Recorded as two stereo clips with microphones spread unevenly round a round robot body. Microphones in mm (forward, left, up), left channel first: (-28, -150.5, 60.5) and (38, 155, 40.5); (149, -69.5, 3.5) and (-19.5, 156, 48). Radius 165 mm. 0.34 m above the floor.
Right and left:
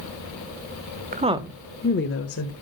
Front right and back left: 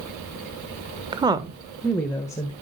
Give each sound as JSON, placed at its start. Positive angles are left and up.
{"t": 1.1, "sound": "a woman speaking", "azimuth_deg": 50, "distance_m": 1.4}